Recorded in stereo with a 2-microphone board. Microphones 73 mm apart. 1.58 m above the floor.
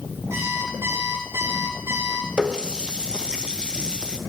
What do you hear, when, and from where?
0.3 s an alarm clock: 40° right (ahead or behind), 7 m
2.4 s a running tap: 15° right (ahead or behind), 0.8 m